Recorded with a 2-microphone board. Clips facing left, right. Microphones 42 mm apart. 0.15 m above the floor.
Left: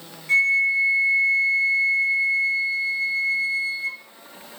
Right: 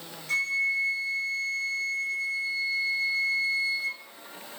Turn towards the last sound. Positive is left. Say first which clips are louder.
# left 8 dB
turn(degrees=30)  # may be behind; listen again after turning